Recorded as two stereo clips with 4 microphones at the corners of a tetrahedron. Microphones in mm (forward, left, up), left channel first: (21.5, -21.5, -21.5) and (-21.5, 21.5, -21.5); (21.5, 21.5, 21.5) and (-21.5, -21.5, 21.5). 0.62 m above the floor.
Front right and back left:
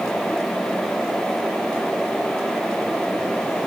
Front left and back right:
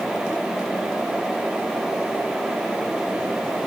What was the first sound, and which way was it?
Only background noise.